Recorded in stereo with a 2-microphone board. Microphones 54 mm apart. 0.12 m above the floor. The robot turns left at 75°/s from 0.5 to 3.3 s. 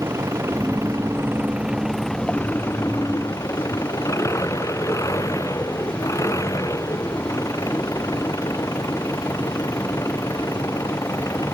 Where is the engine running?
70° right; by 11.6 s 80° left.